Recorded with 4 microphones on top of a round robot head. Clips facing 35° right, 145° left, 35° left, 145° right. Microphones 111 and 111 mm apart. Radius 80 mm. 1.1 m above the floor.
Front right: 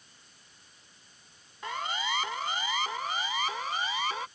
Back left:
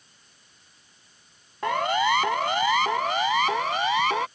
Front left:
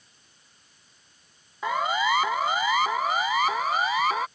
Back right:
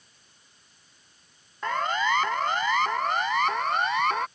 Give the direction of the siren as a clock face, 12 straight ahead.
8 o'clock.